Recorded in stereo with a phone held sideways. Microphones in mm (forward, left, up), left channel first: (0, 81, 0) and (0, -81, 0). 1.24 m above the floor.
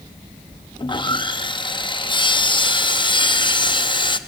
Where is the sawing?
30° left (ahead or behind), 0.6 m.